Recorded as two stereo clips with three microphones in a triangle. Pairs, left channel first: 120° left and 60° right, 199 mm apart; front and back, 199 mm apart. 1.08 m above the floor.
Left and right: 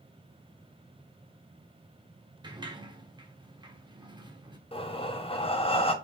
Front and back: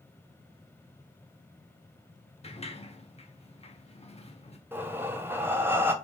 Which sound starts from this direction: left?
Breathing, at 4.7 s.